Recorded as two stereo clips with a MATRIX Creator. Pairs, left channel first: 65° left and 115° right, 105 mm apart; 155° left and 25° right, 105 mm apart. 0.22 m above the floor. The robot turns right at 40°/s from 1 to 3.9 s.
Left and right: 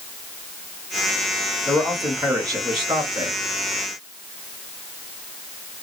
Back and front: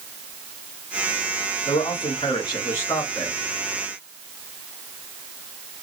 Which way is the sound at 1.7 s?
165° left.